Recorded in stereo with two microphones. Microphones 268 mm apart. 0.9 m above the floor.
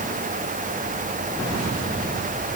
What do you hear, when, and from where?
Only background noise.